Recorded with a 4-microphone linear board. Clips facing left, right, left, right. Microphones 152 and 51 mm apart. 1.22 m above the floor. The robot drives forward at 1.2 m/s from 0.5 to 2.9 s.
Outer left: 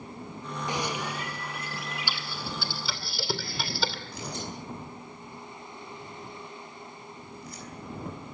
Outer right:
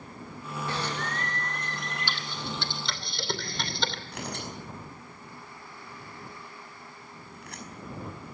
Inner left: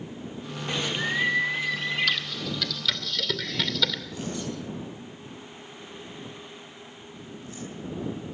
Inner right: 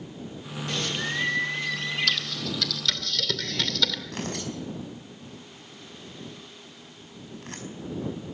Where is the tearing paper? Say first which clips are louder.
Even, even; 80° right, 5 m.